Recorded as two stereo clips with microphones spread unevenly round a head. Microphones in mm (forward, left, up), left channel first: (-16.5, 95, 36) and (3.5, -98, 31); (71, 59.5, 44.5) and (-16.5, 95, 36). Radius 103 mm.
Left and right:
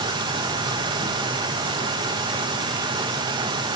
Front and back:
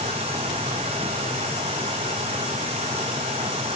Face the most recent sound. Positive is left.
turn(degrees=-150)